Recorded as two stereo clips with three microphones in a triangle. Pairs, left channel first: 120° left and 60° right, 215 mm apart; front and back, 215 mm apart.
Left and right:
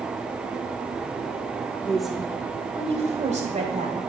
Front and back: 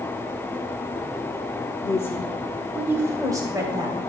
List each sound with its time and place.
1.8 s a woman speaking: 50° left, 1.1 m; by 4.0 s 110° right, 2.5 m